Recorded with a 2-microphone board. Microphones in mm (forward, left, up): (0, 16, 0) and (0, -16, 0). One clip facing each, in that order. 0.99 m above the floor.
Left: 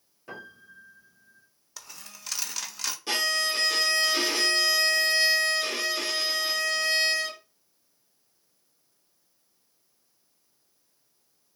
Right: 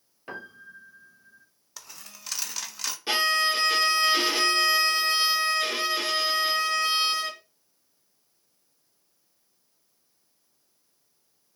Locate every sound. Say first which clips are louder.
0.3 s a piano: right 3 dB; 40° right (ahead or behind), 1.0 m
1.8 s a dropped coin: even; centre (ahead or behind), 0.5 m
3.1 s a violin: right 4 dB; 25° right (ahead or behind), 0.9 m